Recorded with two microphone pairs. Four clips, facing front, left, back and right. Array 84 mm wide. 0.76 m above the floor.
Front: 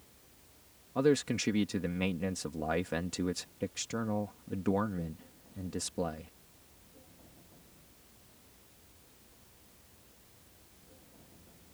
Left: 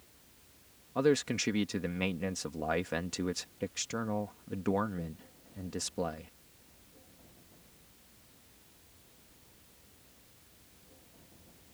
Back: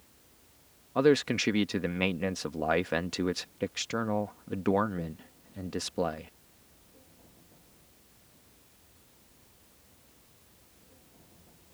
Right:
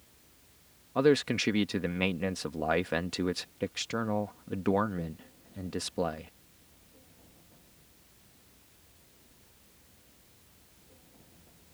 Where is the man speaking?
150° right.